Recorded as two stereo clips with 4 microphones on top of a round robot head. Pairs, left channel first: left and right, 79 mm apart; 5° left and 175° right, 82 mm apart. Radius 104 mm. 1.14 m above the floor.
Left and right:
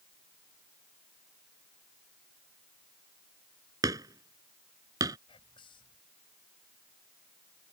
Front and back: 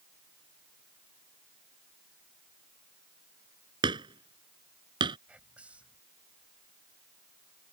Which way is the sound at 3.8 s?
140° right.